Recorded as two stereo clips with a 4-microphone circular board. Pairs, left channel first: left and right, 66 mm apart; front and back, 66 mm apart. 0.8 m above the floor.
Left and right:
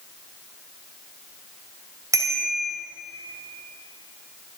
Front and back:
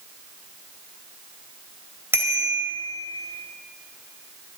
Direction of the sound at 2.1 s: 125° right.